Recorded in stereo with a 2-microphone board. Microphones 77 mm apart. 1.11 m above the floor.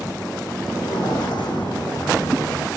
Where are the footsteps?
75° left (ahead or behind), 3.5 m; by 2.7 s 80° left, 5.5 m.